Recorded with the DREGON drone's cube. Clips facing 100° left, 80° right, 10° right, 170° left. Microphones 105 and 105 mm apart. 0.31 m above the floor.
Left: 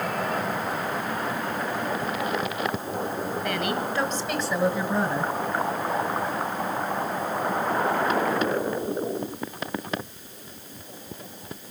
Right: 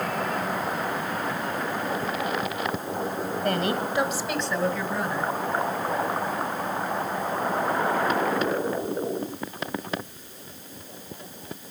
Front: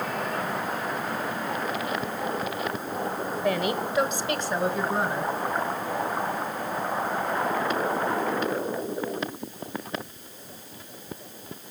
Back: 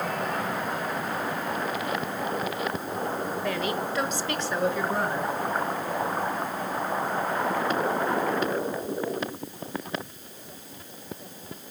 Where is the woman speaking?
80° right, 1.3 m; by 5.3 s 70° left, 1.7 m.